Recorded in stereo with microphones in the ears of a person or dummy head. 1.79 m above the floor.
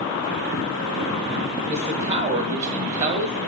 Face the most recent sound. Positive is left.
turn(degrees=-35)  # may be behind; listen again after turning